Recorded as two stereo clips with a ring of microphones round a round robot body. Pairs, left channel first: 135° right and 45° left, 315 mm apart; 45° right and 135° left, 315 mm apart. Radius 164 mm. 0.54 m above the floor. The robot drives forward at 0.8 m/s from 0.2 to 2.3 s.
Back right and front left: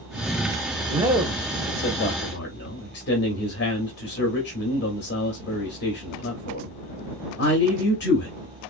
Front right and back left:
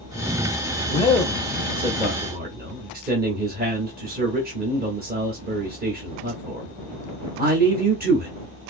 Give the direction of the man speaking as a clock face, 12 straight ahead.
12 o'clock.